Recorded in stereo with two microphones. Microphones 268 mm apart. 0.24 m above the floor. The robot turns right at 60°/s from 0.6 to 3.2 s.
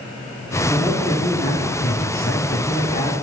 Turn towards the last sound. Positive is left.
turn(degrees=150)